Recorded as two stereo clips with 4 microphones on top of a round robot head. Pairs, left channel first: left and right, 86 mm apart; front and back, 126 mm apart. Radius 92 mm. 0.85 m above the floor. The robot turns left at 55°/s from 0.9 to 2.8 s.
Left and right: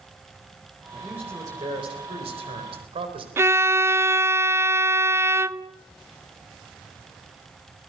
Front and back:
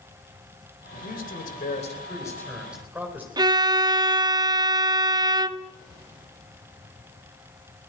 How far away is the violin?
About 0.6 m.